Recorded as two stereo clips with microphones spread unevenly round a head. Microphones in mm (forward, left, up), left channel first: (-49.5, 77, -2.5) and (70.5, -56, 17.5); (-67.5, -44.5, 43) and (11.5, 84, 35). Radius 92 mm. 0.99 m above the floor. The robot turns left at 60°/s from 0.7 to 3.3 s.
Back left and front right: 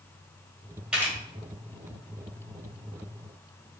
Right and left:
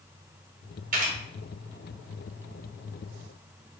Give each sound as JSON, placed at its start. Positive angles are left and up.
{"t": 0.9, "sound": "a camera shutter", "azimuth_deg": 40, "distance_m": 1.6}